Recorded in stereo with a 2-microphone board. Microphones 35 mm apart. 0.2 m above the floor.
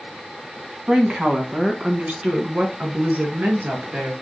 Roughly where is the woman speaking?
Right.